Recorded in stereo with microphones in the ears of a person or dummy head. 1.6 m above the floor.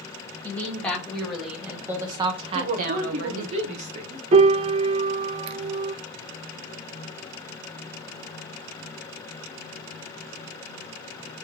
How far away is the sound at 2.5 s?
About 0.7 m.